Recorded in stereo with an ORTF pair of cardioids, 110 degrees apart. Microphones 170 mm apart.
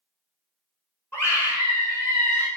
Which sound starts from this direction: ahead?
A scream, at 1.1 s.